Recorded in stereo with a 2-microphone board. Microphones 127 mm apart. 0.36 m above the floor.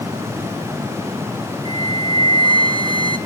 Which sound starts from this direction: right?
A flute, at 1.6 s.